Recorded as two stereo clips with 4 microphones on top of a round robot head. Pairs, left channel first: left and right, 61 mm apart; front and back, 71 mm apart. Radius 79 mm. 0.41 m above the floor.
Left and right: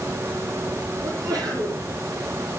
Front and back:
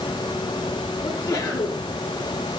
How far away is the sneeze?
About 9.5 m.